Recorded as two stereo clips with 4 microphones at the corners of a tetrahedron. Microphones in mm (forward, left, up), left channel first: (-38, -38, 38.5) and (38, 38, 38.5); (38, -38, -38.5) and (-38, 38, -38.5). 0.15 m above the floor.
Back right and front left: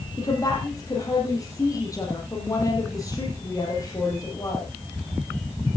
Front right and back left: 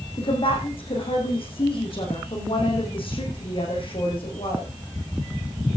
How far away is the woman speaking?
About 5 m.